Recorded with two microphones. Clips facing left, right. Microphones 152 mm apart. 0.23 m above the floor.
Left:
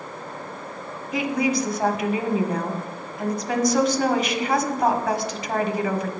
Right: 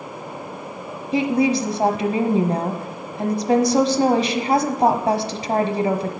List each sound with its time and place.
1.1 s a woman speaking: 30° right (ahead or behind), 1.1 m